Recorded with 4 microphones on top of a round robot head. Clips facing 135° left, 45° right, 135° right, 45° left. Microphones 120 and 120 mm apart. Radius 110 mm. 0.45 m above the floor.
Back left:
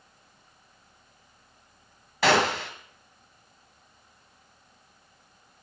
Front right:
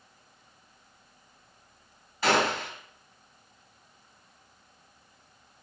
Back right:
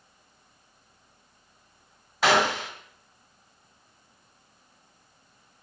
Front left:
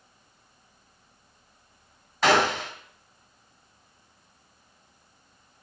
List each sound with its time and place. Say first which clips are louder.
2.2 s a gunshot: back left 3 dB, front left 1 dB; 145° left, 2 m